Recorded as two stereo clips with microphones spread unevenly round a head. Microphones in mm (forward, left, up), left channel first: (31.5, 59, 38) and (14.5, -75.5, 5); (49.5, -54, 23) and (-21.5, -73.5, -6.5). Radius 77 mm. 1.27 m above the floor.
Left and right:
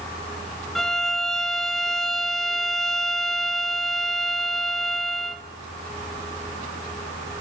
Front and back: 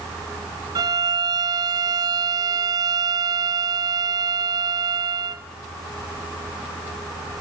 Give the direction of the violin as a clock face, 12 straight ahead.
6 o'clock.